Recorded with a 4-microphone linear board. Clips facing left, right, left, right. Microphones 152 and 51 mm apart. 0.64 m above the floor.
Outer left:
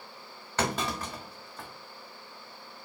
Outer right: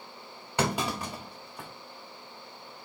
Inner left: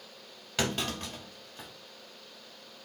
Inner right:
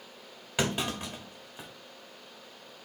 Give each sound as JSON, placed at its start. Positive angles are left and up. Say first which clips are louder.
{"t": 0.6, "sound": "a clunk", "louder": "outer right 2 dB, inner right 1 dB", "side_deg": -10, "distance_m": 1.3}